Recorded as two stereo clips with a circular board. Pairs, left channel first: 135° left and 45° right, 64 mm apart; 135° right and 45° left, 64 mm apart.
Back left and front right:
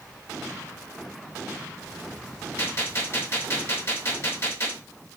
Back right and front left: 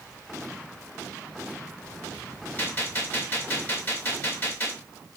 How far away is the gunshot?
About 1.9 m.